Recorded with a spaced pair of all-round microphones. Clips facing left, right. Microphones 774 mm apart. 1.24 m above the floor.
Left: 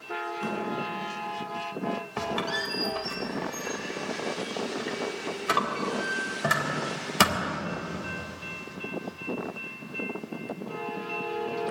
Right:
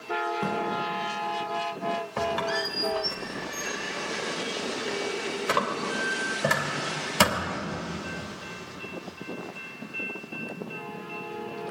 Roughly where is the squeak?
Centre.